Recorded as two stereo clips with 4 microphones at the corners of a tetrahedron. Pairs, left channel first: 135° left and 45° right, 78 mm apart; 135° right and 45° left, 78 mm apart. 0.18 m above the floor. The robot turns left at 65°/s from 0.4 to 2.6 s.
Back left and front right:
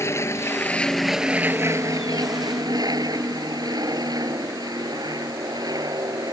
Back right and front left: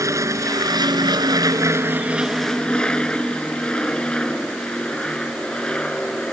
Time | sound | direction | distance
0.0 | an aircraft | 85° left | ?